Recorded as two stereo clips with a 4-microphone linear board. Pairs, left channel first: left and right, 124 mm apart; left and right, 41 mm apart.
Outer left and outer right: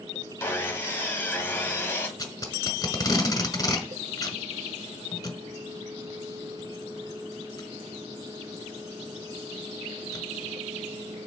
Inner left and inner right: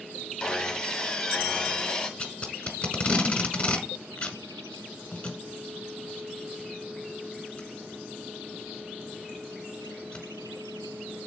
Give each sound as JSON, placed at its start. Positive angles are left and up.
{"t": 0.4, "sound": "sawing", "side_deg": 20, "distance_m": 1.5}
{"t": 2.2, "sound": "tape being pulled", "side_deg": 30, "distance_m": 1.5}